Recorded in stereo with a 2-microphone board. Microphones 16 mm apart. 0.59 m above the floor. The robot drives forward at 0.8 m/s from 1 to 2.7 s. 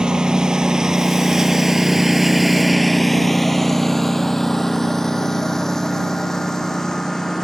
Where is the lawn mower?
65° right (ahead or behind); by 7.5 s 35° left (ahead or behind).